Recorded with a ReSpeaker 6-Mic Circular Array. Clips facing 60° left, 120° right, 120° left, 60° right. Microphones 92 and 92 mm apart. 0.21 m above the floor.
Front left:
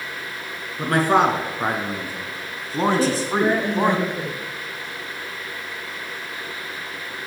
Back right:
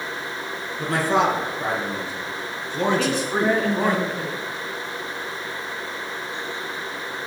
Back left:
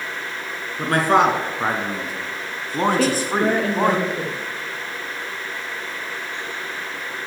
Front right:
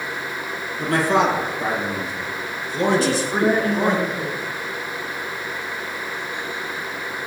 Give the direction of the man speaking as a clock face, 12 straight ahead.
9 o'clock.